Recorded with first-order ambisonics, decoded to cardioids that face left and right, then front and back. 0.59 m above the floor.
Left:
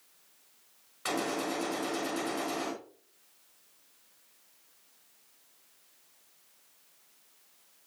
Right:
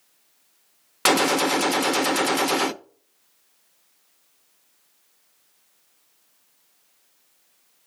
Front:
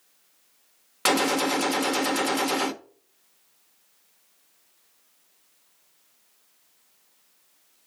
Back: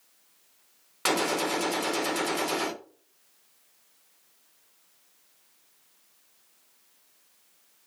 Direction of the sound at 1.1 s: 75° right.